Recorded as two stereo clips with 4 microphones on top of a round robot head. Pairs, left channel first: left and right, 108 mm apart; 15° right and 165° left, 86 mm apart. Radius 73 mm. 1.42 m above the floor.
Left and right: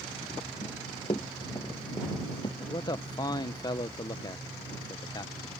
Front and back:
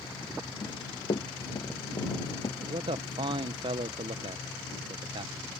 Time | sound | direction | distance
0.6 | running footsteps | 30° left | ?
2.6 | a man speaking | 145° left | ?